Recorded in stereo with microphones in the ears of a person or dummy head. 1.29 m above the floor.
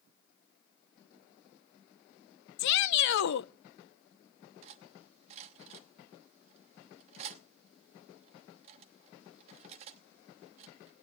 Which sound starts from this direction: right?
Cutlery clinking, at 4.6 s.